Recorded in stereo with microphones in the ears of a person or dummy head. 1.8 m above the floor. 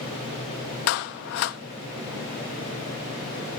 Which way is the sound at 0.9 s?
55° left (ahead or behind).